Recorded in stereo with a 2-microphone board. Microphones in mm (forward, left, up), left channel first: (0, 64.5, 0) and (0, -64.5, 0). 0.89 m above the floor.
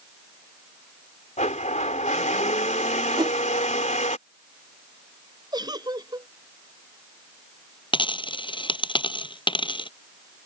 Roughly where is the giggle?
Right.